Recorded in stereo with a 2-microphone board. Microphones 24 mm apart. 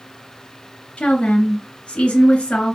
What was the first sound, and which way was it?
A woman speaking, 45° left (ahead or behind).